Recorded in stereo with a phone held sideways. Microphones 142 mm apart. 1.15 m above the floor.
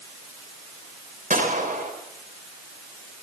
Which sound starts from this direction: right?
A gunshot, at 1.3 s.